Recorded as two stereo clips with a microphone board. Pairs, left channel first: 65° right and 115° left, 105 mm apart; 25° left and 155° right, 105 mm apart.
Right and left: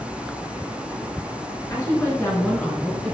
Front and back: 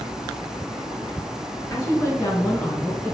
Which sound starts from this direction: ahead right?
A woman speaking, at 1.7 s.